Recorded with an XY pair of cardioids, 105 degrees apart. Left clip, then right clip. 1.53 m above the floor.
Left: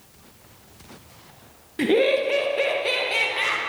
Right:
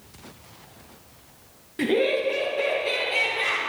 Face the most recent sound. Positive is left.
turn(degrees=60)